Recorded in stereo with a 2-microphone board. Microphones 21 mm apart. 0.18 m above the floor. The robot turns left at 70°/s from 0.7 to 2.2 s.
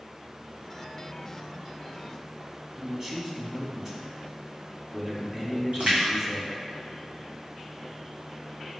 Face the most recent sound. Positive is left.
turn(degrees=-75)  # may be behind; listen again after turning